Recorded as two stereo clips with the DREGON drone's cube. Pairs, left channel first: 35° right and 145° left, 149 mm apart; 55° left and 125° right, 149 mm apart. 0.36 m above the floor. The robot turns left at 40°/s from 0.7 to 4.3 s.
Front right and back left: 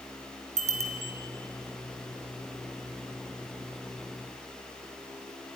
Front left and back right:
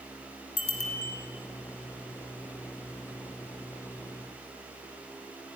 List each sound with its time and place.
0.6 s a bicycle bell: 105° left, 3 m; by 1.1 s 90° left, 3 m